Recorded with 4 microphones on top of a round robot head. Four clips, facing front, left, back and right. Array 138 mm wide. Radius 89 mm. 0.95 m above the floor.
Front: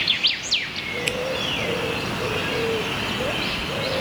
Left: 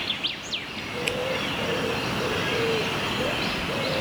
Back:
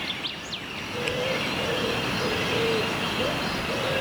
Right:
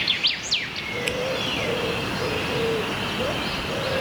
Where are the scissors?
5° right.